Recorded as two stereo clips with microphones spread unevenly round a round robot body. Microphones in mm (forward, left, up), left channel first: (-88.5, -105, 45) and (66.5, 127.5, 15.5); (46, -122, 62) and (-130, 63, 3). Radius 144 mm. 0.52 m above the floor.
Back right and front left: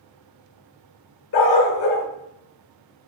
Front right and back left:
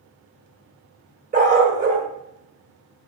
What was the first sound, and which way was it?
A dog barking, 170° right.